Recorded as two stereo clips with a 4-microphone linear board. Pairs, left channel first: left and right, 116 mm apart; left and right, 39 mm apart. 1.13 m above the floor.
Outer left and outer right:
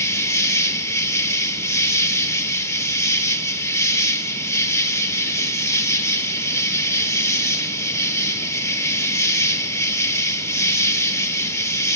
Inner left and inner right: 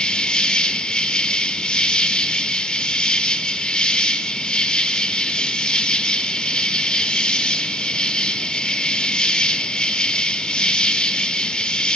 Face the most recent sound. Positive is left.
turn(degrees=25)  # may be behind; listen again after turning